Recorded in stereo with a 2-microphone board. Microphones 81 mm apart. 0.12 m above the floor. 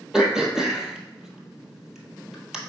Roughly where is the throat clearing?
Centre.